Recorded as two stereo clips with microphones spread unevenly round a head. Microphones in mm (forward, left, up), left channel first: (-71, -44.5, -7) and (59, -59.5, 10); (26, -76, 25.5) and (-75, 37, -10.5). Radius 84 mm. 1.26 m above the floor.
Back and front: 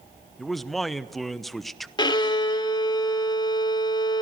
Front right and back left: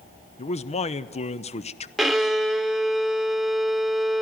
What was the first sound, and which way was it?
A man speaking, 100° right.